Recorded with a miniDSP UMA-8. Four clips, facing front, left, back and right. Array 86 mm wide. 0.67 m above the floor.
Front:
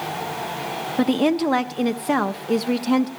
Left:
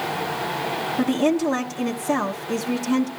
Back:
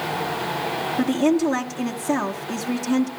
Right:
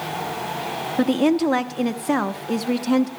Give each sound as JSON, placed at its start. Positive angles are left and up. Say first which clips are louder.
{"t": 1.0, "sound": "a woman speaking", "louder": "right 2 dB, even", "azimuth_deg": -30, "distance_m": 1.0}